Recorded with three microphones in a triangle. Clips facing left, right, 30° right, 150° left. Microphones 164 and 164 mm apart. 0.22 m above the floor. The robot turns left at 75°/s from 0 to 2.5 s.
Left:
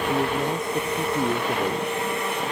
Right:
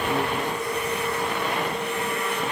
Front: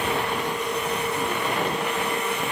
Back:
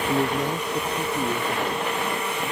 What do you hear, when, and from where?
0.1 s a man speaking: 170° left; by 1.9 s 35° left